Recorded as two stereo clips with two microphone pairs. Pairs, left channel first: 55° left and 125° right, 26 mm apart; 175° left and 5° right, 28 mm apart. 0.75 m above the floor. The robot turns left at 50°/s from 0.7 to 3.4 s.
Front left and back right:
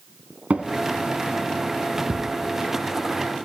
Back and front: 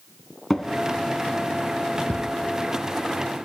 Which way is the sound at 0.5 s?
110° right.